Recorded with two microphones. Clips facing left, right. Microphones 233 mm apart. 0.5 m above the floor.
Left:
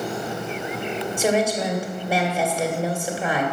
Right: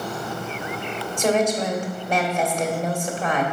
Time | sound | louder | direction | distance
1.2 | a woman speaking | right 1 dB | 10° left (ahead or behind) | 2 m